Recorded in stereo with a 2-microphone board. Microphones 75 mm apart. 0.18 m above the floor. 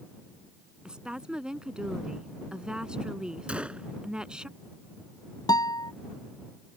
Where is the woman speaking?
10° right (ahead or behind).